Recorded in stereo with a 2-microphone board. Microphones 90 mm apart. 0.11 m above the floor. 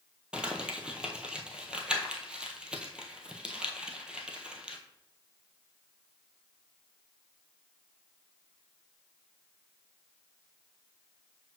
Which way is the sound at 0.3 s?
10° right (ahead or behind).